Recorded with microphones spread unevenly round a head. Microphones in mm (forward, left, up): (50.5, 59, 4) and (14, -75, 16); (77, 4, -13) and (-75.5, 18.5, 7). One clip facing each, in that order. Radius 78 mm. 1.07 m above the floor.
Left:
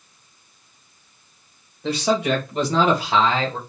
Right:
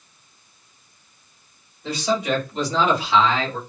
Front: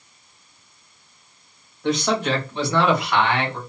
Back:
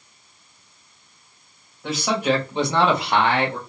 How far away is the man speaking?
About 1.6 m.